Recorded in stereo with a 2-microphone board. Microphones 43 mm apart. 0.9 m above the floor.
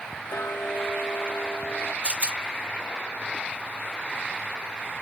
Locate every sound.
0.3 s ticking: 65° left (ahead or behind), 1.0 m
2.0 s a rattle: 30° right (ahead or behind), 0.7 m